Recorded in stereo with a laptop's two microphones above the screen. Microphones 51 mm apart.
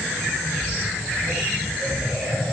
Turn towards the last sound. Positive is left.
No sound to turn to.